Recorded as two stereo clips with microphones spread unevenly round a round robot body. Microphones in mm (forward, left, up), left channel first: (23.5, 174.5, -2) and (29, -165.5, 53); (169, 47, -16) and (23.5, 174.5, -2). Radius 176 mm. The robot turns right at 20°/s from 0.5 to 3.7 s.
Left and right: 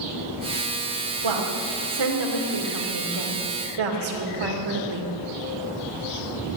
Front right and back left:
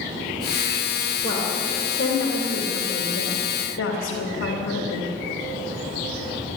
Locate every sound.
1.2 s a woman speaking: 120° right, 2.5 m; by 5.1 s 70° right, 2.5 m